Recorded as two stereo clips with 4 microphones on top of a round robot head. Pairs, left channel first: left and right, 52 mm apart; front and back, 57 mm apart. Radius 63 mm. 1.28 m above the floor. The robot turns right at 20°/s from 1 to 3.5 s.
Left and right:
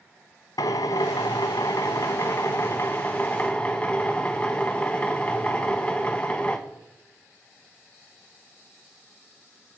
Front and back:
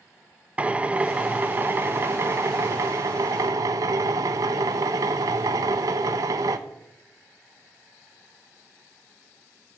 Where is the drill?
115° left, 0.7 m; by 6.6 s 165° left, 0.7 m.